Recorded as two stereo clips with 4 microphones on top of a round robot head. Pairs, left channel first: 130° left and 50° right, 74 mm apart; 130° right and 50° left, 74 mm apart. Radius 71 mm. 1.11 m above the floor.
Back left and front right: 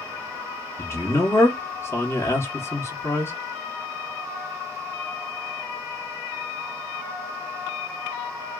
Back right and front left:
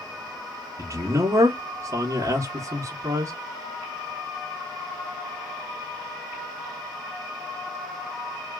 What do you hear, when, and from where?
0.8 s a man speaking: 90° left, 1.0 m